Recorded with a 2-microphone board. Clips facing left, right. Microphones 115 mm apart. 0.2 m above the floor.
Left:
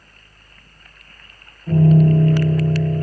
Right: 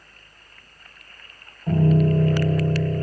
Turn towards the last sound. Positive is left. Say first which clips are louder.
# left 5 dB
turn(degrees=-40)  # may be behind; listen again after turning